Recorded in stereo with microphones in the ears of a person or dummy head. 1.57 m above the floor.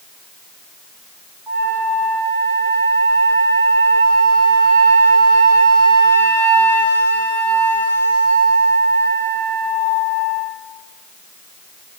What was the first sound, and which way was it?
A flute, 10° left (ahead or behind).